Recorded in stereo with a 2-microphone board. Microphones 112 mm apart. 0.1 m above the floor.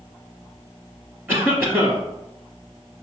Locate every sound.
1.3 s a cough: 20° right (ahead or behind), 1.6 m